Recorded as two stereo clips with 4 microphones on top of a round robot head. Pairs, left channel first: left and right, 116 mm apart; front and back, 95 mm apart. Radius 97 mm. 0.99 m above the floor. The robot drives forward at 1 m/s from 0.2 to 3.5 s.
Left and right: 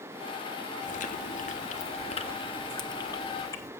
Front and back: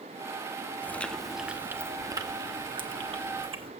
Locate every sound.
0.8 s chewing: 70° left, 1.3 m; by 3.7 s 150° left, 2.5 m